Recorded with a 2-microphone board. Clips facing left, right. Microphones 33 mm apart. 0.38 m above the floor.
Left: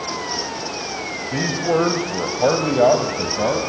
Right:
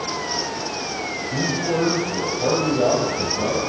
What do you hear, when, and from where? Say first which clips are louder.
1.3 s a man speaking: left 4 dB; 45° left (ahead or behind), 1.9 m; by 3.6 s 60° left (ahead or behind), 2.5 m